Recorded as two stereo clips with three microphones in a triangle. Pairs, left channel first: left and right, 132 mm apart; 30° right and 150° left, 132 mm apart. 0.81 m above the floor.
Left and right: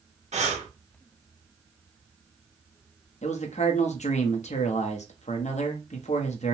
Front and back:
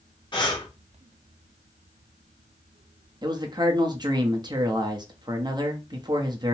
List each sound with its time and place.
0.3 s breathing: 80° right, 0.8 m
3.2 s a man speaking: 100° left, 0.6 m